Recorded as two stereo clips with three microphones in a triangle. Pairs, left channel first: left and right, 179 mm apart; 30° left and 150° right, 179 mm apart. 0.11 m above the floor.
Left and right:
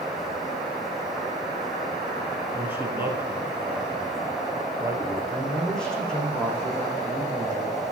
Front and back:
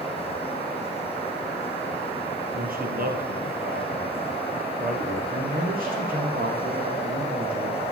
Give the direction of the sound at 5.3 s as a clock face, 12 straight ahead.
6 o'clock.